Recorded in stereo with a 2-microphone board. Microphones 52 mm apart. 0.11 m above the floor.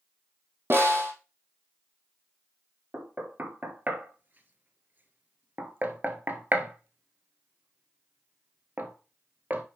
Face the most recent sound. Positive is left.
turn(degrees=-35)  # may be behind; listen again after turning